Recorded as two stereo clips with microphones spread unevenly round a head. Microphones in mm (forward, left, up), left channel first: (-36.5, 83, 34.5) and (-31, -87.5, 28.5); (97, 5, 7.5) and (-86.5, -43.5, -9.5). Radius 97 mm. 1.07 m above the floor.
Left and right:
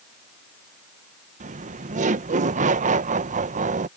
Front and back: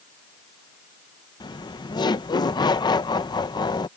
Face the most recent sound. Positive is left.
turn(degrees=-55)